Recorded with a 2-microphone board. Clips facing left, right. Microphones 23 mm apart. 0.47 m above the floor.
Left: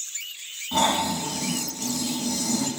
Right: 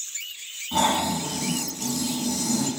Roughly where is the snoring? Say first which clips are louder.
Even; centre.